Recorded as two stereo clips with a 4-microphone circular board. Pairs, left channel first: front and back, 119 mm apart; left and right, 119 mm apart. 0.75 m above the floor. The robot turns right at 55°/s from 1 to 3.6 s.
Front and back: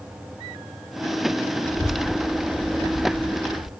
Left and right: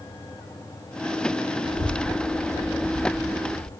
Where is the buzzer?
No buzzer in this recording.